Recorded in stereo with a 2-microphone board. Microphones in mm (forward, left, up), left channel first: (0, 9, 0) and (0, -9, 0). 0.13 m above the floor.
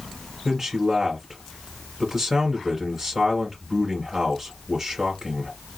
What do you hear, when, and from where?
0.5 s a man speaking: 20° right (ahead or behind), 1.5 m